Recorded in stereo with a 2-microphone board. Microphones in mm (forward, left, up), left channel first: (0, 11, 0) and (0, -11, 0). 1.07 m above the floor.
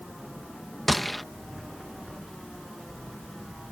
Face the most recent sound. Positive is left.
turn(degrees=5)  # may be behind; listen again after turning